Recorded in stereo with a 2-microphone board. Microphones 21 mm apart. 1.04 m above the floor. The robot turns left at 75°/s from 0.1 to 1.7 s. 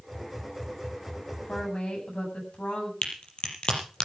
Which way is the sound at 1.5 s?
85° left.